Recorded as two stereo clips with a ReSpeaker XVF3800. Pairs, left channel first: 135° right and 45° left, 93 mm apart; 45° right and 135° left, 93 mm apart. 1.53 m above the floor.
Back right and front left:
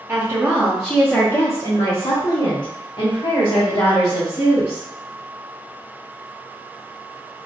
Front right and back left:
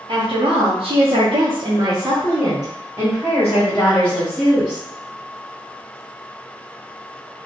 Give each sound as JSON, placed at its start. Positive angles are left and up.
{"t": 0.1, "sound": "a woman speaking", "azimuth_deg": 105, "distance_m": 0.9}